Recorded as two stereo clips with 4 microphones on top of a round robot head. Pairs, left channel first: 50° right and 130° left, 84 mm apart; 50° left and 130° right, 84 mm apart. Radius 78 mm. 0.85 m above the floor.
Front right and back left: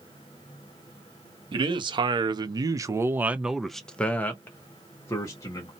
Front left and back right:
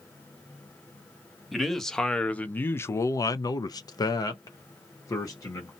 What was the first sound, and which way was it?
A man speaking, 140° left.